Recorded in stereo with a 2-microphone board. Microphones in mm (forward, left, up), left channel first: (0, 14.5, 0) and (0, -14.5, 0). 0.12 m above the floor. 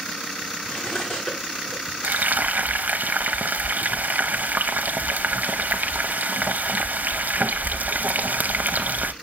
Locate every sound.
0.7 s cutlery clinking: 55° left (ahead or behind), 7 m
2.0 s frying: 80° right, 1.0 m